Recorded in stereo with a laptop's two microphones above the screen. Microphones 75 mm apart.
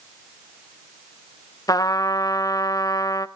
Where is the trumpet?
55° left (ahead or behind), 0.5 m.